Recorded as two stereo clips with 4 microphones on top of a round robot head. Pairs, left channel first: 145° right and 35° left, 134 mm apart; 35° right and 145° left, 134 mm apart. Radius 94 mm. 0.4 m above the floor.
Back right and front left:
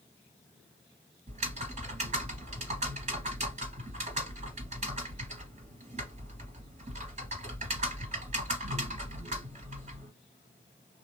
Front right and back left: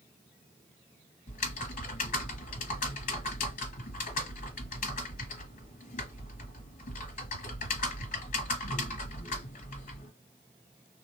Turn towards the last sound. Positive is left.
turn(degrees=-5)